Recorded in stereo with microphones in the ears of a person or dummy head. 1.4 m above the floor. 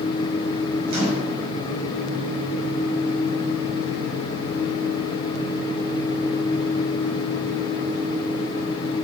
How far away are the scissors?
No scissors in this recording.